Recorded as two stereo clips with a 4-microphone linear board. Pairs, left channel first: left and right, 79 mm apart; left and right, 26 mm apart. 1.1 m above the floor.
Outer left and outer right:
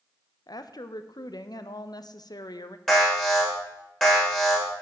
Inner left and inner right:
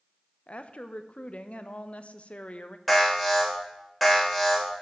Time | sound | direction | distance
0.5 | a woman speaking | 70° left (ahead or behind) | 0.6 m
2.9 | an alarm | 5° left (ahead or behind) | 3.5 m